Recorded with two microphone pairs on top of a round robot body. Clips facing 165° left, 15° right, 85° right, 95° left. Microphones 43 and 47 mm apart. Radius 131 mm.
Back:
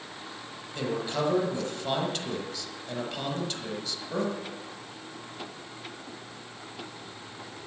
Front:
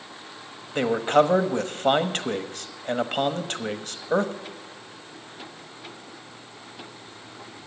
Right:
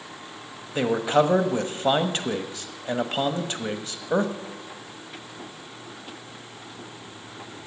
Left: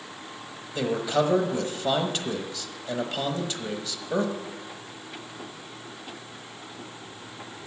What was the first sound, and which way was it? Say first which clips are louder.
A man speaking: front 10 dB, right 4 dB; 30° right.